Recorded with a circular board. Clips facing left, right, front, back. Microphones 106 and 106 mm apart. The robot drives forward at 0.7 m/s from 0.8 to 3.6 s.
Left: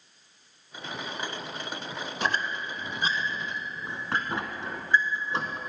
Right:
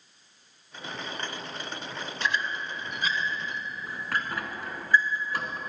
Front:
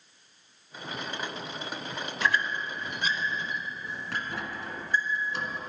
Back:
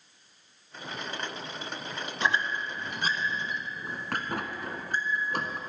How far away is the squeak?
About 0.9 m.